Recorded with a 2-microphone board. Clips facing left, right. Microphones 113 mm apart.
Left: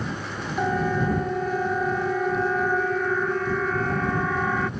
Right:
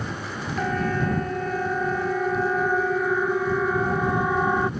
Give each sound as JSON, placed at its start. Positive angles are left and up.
{"t": 0.6, "sound": "a siren", "side_deg": 10}